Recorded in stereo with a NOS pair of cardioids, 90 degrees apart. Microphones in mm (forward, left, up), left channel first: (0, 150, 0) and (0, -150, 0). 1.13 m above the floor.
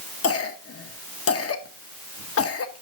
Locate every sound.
0.2 s a cough: 45° left, 1.3 m